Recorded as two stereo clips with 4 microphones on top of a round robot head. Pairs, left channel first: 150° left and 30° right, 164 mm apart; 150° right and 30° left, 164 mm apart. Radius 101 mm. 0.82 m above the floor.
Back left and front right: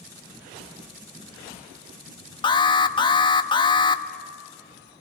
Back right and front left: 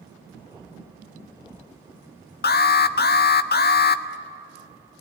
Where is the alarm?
150° right, 1.0 m.